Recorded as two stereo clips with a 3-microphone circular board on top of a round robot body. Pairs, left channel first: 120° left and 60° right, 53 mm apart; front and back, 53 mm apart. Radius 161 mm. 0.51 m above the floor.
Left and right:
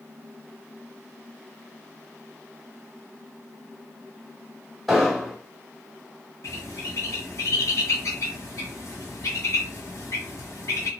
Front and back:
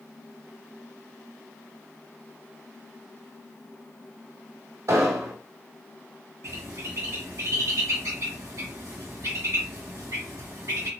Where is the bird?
150° left, 2 m.